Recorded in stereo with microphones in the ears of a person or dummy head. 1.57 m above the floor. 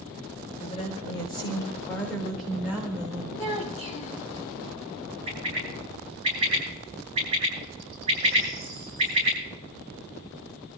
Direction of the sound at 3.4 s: 40° left (ahead or behind).